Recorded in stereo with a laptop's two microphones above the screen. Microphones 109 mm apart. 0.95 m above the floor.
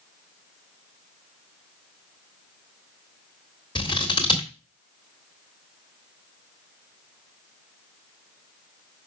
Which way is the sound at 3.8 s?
45° left (ahead or behind).